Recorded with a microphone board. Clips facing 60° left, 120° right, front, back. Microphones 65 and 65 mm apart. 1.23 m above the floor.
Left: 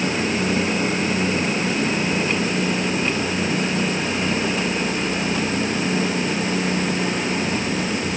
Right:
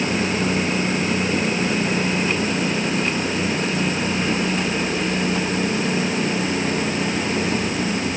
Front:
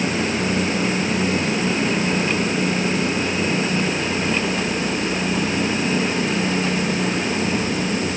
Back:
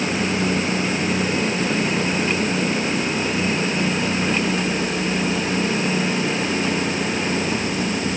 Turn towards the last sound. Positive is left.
No sound to turn to.